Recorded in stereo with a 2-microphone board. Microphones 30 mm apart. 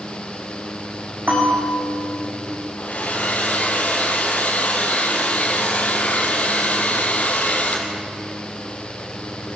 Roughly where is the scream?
I don't hear a scream.